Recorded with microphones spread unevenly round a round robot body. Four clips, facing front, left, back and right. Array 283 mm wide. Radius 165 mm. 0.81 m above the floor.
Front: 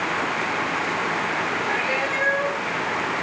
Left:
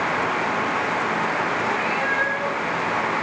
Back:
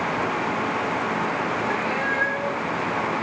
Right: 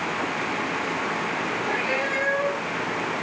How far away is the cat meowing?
About 4.5 m.